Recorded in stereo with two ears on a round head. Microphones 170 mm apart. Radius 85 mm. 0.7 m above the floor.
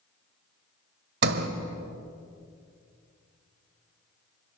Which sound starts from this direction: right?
A sliding door, at 1.2 s.